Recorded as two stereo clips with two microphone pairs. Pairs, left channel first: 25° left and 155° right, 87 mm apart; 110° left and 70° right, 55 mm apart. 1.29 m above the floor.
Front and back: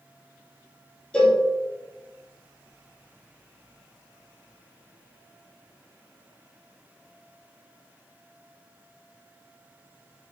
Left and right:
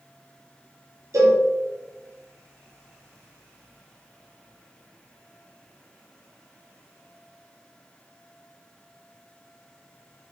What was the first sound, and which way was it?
A cowbell, 55° right.